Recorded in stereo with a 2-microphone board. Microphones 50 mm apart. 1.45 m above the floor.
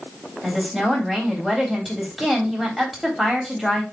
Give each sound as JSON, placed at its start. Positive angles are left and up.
{"t": 0.4, "sound": "a woman speaking", "side_deg": -5, "distance_m": 3.5}